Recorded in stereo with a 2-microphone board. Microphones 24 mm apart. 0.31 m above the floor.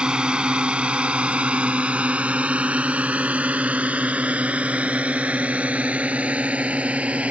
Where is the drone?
40° right (ahead or behind); by 7.3 s 65° right (ahead or behind).